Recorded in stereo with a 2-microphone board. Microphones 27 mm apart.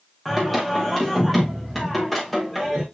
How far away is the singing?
About 7.5 m.